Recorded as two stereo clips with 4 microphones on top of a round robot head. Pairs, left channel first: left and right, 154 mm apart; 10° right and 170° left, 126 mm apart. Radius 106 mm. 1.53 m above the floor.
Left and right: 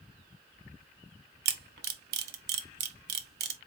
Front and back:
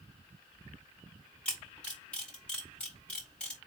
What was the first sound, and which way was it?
A camera shutter, 95° right.